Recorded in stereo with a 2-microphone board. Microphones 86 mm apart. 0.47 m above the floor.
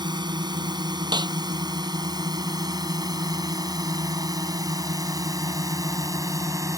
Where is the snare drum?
55° right (ahead or behind).